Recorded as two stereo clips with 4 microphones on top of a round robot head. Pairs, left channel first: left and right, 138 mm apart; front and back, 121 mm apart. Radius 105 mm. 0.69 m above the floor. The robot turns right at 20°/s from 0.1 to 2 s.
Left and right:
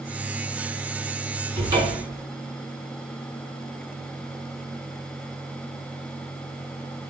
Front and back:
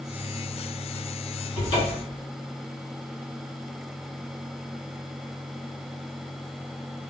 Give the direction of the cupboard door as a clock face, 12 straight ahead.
1 o'clock.